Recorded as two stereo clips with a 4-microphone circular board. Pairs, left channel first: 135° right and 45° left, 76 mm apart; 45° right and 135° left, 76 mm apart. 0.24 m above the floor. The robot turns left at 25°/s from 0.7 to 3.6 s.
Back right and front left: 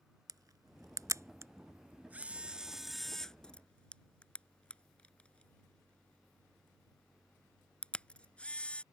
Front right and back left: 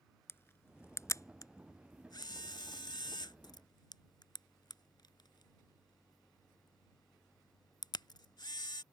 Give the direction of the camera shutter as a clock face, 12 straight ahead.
12 o'clock.